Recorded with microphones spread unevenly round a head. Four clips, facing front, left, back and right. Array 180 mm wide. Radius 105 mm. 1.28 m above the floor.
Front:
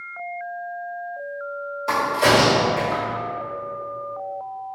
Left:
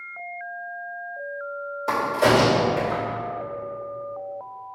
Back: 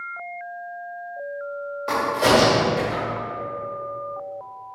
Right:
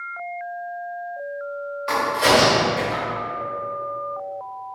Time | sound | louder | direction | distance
1.9 | a crack | right 1 dB, front 1 dB | 115° left | 2.5 m